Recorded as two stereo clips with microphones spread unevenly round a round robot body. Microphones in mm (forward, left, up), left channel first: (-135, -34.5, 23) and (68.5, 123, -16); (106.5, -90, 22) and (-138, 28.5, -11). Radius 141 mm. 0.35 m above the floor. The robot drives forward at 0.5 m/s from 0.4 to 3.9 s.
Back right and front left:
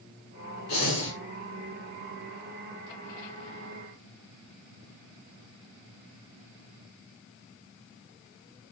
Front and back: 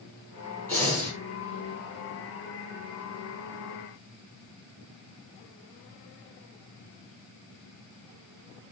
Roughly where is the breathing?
Right.